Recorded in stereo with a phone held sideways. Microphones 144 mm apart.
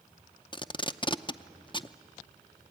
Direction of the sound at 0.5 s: 35° left (ahead or behind).